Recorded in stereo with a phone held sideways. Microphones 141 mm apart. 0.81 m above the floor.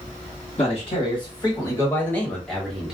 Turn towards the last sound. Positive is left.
turn(degrees=-5)  # may be behind; listen again after turning